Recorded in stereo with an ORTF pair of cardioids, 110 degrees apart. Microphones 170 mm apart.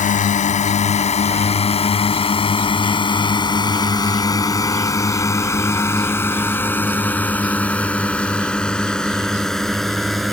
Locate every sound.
0.0 s a drone: 50° left; by 10.3 s straight ahead